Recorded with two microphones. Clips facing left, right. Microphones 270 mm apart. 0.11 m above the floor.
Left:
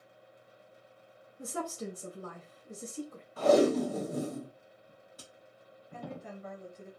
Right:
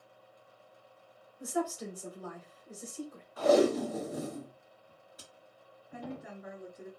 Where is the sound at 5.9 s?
10° right (ahead or behind), 1.4 m.